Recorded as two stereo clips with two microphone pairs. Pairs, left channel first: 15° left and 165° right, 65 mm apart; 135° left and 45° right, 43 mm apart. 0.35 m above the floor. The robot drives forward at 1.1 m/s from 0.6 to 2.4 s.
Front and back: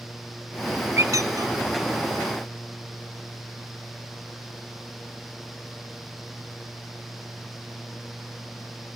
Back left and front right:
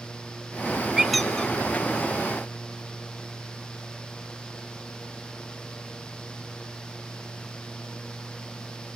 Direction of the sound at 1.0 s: 120° right.